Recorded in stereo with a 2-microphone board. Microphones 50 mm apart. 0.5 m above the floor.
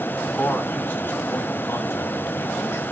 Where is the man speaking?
35° left (ahead or behind), 4 m; by 2.8 s 65° left (ahead or behind), 5 m.